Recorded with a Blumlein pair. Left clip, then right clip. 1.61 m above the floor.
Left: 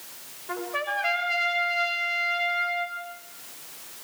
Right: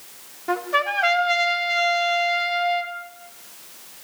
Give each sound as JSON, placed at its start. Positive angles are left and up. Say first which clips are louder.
{"t": 0.5, "sound": "a trumpet", "louder": "right 7 dB", "azimuth_deg": -50, "distance_m": 4.0}